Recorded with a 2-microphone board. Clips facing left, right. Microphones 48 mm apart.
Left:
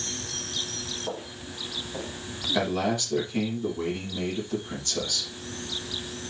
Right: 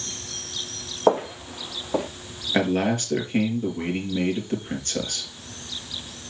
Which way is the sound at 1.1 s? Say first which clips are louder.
Right 20 dB; 75° right (ahead or behind).